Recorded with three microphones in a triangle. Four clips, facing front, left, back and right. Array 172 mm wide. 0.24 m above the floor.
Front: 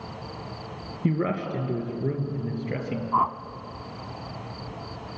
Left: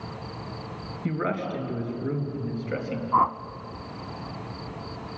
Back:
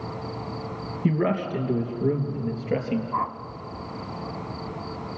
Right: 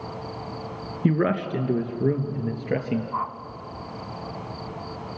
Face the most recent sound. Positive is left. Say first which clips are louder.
# left 7 dB, front 8 dB
turn(degrees=75)